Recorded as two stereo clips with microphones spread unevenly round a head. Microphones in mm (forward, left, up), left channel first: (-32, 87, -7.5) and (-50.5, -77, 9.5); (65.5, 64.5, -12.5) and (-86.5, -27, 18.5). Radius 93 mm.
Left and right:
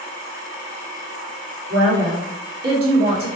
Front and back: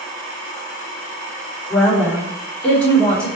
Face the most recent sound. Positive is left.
turn(degrees=-55)